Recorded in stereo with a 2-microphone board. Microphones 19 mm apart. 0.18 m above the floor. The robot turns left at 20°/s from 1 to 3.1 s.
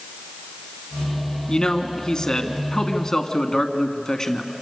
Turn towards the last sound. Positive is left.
turn(degrees=45)